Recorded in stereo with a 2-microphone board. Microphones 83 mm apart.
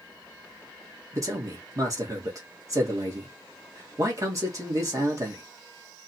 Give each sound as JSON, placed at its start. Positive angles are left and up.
{"t": 1.1, "sound": "a man speaking", "side_deg": -40, "distance_m": 1.5}